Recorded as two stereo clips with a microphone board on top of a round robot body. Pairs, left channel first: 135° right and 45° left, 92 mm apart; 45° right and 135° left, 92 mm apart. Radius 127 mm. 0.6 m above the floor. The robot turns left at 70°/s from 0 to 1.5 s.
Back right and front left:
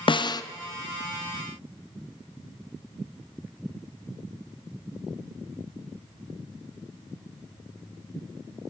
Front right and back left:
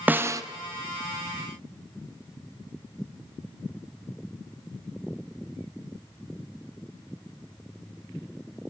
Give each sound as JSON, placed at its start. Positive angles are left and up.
{"t": 0.1, "sound": "a snare drum", "azimuth_deg": -155, "distance_m": 0.8}